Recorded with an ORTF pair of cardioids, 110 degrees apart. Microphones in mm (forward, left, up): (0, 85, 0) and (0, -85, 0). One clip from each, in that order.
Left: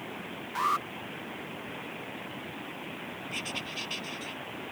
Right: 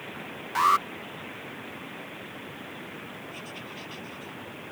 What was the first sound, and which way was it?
An alarm, 35° right.